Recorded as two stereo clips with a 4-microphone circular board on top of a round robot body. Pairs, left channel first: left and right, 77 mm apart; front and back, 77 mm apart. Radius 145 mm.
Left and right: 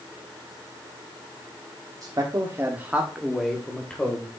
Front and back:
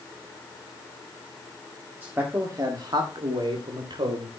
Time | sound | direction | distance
2.0 | a man speaking | 115° right | 1.9 m